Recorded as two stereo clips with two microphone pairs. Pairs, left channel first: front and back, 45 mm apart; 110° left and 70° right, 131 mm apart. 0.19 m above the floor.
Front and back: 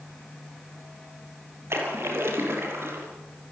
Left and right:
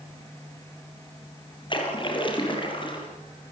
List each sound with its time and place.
1.7 s a splash: 160° left, 6.5 m